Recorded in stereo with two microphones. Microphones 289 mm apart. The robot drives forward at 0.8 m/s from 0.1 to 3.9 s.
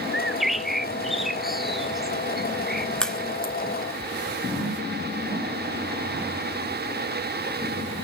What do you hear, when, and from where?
0.1 s a bird: centre (ahead or behind), 0.7 m
3.0 s a crack: 5° left (ahead or behind), 2 m; by 3.5 s centre (ahead or behind), 2.5 m